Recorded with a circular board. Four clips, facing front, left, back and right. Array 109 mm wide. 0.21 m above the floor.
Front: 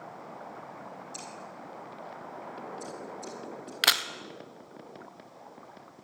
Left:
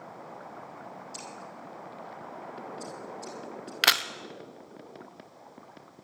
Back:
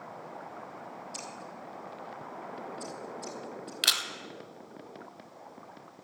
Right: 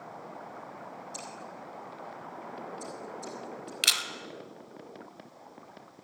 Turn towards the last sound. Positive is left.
turn(degrees=65)